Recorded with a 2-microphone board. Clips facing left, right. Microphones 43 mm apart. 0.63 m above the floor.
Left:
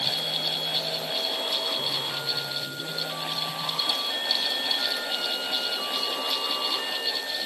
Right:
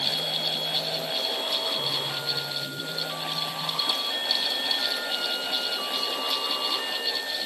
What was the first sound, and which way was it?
Only background noise.